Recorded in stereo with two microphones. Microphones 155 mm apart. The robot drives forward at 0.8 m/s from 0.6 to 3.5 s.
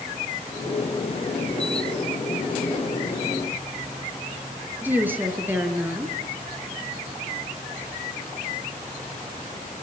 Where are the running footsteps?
No running footsteps in this recording.